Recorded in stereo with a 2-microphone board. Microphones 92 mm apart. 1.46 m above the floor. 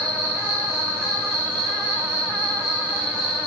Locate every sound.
0.0 s an insect: 35° right (ahead or behind), 3 m